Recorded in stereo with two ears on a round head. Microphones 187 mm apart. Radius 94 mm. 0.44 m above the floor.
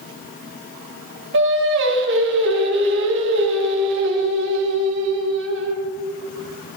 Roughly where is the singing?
Right.